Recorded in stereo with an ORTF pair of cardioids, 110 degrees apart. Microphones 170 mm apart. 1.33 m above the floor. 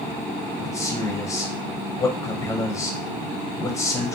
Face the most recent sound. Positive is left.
turn(degrees=20)